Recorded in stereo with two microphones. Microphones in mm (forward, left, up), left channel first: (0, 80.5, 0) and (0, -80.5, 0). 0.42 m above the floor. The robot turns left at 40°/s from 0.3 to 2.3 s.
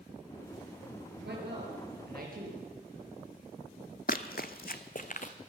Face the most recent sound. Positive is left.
turn(degrees=50)  # may be behind; listen again after turning